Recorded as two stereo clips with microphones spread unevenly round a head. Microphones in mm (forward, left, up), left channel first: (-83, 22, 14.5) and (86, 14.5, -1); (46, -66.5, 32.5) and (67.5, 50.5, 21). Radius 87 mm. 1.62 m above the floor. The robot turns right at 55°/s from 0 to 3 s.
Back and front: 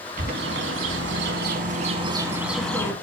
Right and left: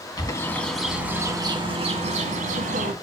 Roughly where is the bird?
Ahead right.